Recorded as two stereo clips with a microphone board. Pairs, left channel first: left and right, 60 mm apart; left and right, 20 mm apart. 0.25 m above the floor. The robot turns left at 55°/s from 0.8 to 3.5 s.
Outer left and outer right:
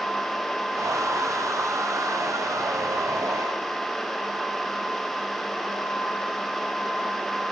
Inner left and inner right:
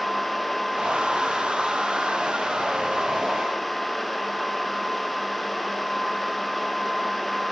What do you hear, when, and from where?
Only background noise.